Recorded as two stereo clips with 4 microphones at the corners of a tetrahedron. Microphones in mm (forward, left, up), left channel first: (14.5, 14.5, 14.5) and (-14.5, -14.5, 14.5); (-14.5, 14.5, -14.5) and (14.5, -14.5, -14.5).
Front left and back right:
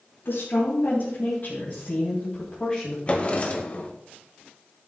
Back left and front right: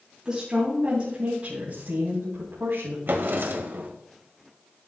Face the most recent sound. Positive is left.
turn(degrees=-10)